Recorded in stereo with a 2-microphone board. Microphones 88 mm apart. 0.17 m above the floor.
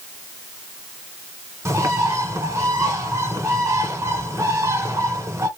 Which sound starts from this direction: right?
A bird, at 1.6 s.